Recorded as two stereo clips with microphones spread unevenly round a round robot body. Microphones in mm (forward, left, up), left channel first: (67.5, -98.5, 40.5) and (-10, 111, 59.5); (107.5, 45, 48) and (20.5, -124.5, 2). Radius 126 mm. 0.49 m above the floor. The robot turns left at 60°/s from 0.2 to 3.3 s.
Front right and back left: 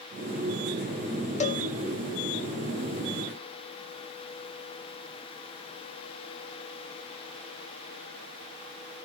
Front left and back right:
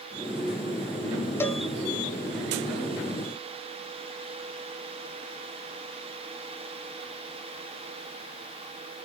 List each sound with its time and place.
1.4 s a cowbell: 25° right, 0.9 m; by 1.6 s 40° right, 0.9 m